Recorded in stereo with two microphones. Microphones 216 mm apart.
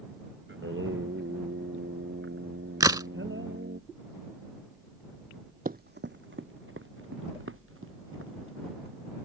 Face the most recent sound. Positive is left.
turn(degrees=-75)  # may be behind; listen again after turning